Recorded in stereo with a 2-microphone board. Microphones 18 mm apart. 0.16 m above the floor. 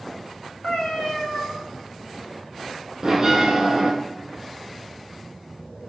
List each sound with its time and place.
0.6 s a cat meowing: 65° left (ahead or behind), 2 m
3.0 s a bell: 25° right (ahead or behind), 1.9 m